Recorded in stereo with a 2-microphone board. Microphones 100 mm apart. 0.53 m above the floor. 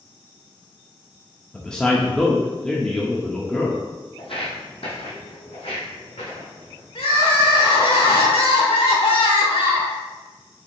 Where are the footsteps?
65° left (ahead or behind), 1.1 m; by 6.8 s 75° left (ahead or behind), 2.5 m.